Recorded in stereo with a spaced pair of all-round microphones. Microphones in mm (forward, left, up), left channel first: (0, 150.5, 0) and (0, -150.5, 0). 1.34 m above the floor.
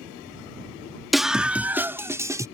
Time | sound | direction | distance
1.1 | a scream | centre (ahead or behind) | ?